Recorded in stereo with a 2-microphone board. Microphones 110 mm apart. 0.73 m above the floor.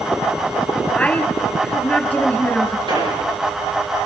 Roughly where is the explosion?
Right.